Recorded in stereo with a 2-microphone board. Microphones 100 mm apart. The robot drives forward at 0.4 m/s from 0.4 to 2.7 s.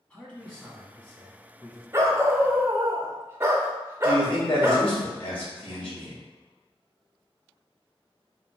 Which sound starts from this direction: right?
A dog barking, at 1.9 s.